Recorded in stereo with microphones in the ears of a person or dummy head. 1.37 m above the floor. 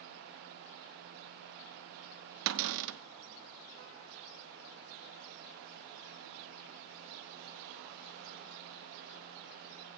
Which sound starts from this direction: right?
A cupboard door, at 2.5 s.